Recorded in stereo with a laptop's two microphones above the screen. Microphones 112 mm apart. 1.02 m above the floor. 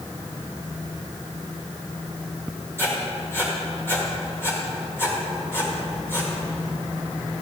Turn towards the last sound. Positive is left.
turn(degrees=20)  # may be behind; listen again after turning